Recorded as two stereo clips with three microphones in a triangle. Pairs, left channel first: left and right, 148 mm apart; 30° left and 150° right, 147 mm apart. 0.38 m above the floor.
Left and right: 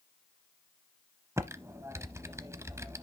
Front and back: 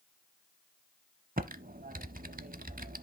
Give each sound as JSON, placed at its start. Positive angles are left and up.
{"t": 1.4, "sound": "typing on a keyboard", "azimuth_deg": -160, "distance_m": 0.6}